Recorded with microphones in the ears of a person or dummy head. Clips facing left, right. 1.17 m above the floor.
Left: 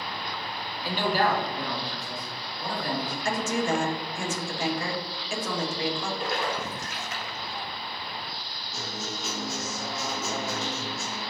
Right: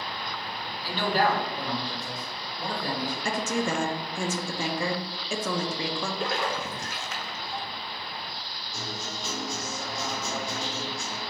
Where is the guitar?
10° left (ahead or behind), 0.6 m.